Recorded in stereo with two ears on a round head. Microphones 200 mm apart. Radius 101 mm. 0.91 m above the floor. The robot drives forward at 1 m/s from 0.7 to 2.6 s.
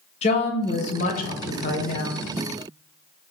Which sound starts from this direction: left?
A woman speaking, at 0.2 s.